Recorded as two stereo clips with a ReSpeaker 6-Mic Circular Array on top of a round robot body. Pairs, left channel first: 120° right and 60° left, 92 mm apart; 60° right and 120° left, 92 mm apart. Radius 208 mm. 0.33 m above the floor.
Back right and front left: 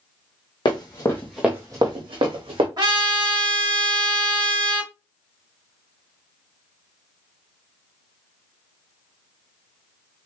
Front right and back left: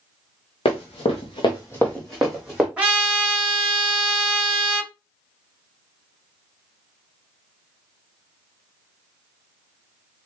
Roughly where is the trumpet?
Ahead left.